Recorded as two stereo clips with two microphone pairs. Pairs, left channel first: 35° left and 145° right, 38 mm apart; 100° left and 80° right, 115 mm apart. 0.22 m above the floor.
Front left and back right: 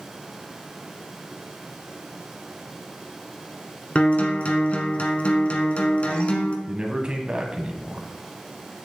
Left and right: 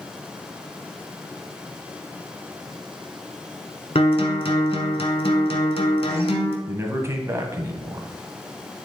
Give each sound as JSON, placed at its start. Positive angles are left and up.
{"t": 4.0, "sound": "a guitar", "azimuth_deg": 80, "distance_m": 1.2}
{"t": 6.7, "sound": "a man speaking", "azimuth_deg": -115, "distance_m": 1.3}